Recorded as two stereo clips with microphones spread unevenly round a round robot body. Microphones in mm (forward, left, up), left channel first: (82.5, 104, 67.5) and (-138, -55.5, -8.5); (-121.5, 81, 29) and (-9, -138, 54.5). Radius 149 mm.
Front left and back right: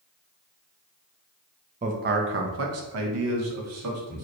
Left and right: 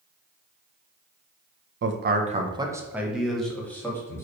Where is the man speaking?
95° right, 0.7 m; by 4.3 s 165° right, 1.9 m.